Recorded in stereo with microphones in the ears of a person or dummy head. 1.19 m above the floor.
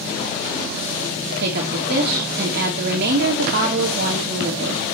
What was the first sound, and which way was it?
A woman speaking, 60° right (ahead or behind).